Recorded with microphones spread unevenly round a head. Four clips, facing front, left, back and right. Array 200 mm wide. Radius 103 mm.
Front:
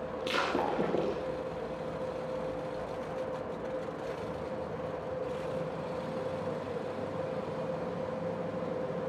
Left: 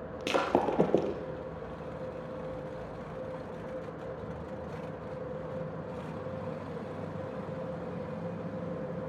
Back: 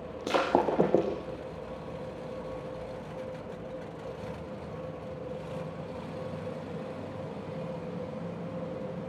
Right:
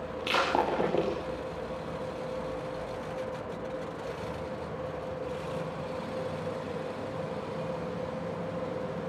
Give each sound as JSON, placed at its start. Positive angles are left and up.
{"t": 0.2, "sound": "breaking glass", "azimuth_deg": 150, "distance_m": 3.5}